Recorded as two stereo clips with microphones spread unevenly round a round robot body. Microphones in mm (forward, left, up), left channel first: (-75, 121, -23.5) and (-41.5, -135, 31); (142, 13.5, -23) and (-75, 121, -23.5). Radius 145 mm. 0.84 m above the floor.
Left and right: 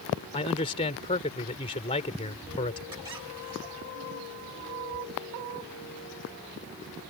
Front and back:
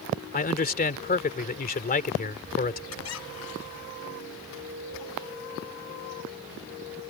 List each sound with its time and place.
0.3 s a man speaking: 25° left
2.9 s a squeak: 5° right